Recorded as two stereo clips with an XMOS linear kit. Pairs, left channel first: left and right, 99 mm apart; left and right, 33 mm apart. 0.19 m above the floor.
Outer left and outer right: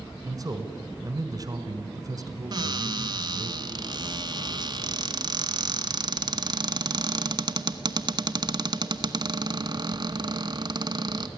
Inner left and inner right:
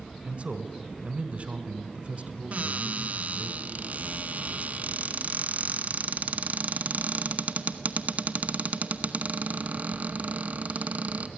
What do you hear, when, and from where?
0.2 s a man speaking: 40° right (ahead or behind), 1.6 m
2.5 s a cupboard door: 45° right (ahead or behind), 0.9 m